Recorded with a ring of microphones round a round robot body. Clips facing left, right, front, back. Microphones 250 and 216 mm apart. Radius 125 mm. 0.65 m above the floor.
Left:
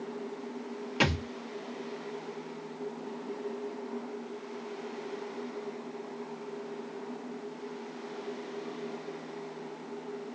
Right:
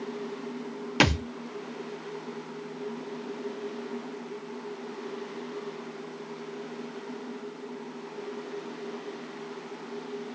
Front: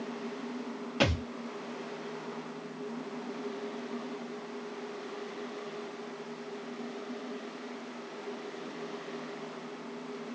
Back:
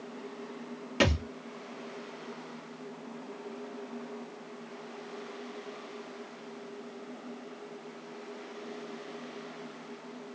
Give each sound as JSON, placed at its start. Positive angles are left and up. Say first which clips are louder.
{"t": 1.0, "sound": "a thud", "louder": "right 5 dB, back 2 dB", "azimuth_deg": -110, "distance_m": 0.6}